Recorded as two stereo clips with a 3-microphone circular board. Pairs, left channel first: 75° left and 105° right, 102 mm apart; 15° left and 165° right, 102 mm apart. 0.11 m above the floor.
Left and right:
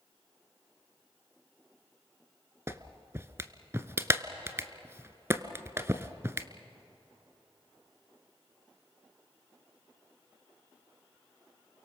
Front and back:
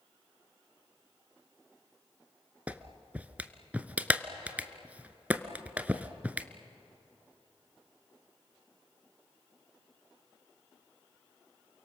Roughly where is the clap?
Right.